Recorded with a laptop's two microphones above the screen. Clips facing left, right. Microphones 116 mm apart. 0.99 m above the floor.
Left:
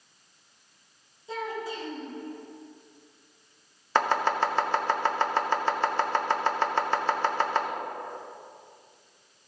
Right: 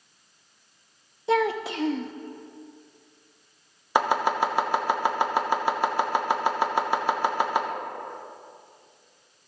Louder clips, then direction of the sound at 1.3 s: Right 10 dB; 80° right.